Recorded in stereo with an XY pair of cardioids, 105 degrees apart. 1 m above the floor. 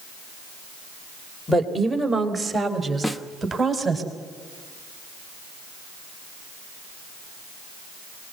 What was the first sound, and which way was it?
A woman speaking, 5° right.